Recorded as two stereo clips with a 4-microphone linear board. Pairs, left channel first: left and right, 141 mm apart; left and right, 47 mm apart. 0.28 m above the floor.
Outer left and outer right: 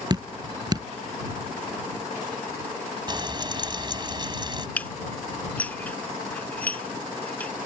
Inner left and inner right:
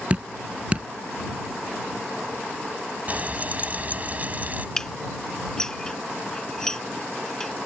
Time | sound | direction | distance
0.1 | dripping | 30° right (ahead or behind) | ?
3.1 | frying | 30° right (ahead or behind) | ?
4.8 | dishes clattering | 10° left (ahead or behind) | ?